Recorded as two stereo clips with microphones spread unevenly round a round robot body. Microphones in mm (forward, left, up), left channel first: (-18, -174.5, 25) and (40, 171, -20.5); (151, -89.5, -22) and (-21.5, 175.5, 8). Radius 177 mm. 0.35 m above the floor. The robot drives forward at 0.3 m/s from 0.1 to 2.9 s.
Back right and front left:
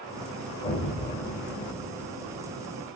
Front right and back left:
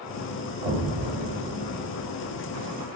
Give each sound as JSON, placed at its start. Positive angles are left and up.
{"t": 0.6, "sound": "an explosion", "azimuth_deg": -165, "distance_m": 1.7}